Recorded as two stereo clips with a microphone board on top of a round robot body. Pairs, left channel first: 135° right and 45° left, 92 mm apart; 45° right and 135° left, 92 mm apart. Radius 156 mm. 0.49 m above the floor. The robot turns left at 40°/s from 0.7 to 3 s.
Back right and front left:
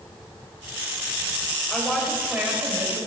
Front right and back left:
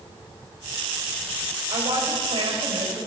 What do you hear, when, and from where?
1.7 s a woman speaking: 145° left, 3.5 m; by 3.1 s 90° left, 3.5 m